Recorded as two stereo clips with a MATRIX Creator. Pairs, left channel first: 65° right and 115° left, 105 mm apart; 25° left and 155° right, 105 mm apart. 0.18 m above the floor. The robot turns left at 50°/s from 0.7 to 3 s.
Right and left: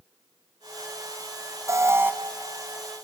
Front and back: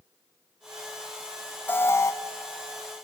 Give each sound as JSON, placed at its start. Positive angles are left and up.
{"t": 1.7, "sound": "an alarm", "azimuth_deg": 80, "distance_m": 0.8}